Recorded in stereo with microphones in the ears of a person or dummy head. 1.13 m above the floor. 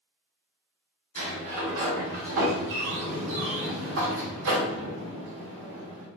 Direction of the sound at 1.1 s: 65° right (ahead or behind).